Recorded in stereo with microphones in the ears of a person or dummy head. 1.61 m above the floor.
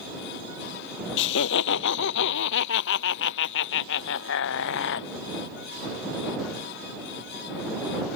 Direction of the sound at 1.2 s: 65° left (ahead or behind).